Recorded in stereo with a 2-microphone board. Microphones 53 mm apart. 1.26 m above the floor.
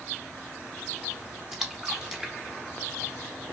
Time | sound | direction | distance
1.5 | a splash | 10° right (ahead or behind) | 0.9 m